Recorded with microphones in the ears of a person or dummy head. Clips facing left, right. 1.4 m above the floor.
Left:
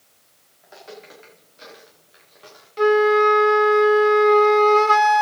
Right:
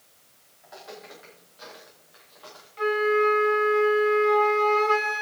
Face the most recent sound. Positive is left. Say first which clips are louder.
# left 7 dB
turn(degrees=70)  # may be behind; listen again after turning